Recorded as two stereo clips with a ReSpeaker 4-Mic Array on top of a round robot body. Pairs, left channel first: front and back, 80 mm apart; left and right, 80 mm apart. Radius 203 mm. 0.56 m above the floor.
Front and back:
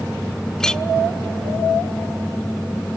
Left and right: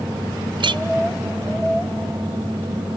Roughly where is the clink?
Right.